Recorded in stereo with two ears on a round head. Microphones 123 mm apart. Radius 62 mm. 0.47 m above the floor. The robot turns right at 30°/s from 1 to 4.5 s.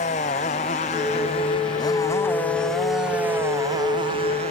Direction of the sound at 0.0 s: 125° left.